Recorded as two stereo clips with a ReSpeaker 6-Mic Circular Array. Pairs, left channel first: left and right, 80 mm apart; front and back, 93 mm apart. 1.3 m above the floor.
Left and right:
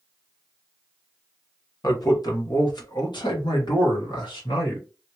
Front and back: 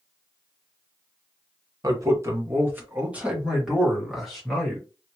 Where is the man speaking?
130° left, 1.3 m; by 4.9 s 85° left, 2 m.